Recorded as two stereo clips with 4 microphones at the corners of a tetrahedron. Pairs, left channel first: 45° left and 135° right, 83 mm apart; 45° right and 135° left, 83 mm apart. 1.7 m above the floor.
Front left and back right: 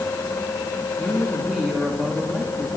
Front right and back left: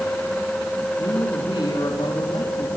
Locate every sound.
1.0 s a woman speaking: 45° right, 3.5 m